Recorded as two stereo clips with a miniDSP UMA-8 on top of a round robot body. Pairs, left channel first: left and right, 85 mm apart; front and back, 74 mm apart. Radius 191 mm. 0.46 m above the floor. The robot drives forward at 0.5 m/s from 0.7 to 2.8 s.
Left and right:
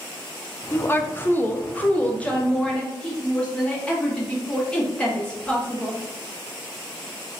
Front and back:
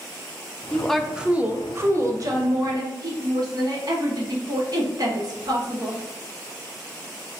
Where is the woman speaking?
60° left, 0.7 m; by 6.0 s 165° left, 1.2 m.